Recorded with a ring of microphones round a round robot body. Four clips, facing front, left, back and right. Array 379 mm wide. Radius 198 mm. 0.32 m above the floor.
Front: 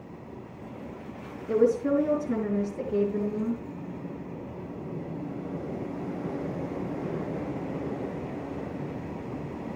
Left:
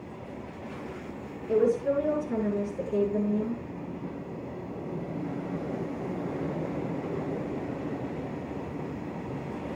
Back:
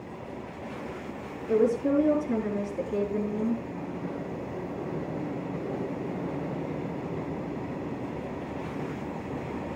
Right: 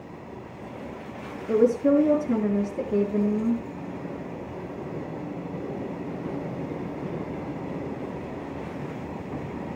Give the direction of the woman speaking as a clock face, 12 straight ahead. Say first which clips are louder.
Right 4 dB, front 1 dB; 3 o'clock.